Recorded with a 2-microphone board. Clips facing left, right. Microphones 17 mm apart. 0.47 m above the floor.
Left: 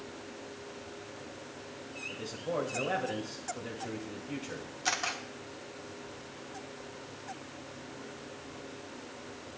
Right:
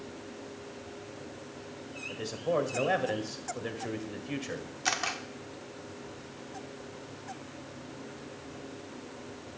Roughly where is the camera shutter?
Centre.